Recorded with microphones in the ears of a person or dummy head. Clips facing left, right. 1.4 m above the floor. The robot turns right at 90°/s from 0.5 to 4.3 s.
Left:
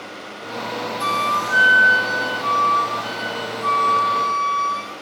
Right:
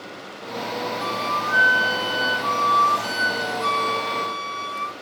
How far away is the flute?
About 0.8 m.